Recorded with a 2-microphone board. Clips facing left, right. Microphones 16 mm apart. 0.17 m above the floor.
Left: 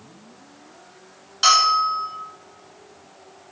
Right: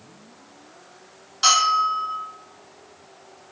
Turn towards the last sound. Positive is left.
turn(degrees=20)  # may be behind; listen again after turning